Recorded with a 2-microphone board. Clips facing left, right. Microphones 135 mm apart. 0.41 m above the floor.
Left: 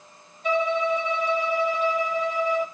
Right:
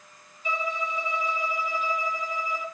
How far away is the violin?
About 0.7 m.